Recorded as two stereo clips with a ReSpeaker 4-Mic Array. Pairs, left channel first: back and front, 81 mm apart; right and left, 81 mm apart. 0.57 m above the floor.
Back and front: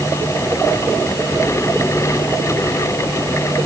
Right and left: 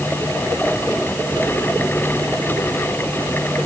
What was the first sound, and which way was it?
Only background noise.